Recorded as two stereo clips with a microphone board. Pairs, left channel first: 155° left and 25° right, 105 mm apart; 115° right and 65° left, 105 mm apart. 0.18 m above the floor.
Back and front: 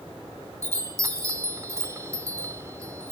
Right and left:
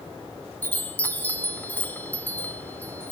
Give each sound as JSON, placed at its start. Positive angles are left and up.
{"t": 0.6, "sound": "a chime", "azimuth_deg": -55, "distance_m": 0.6}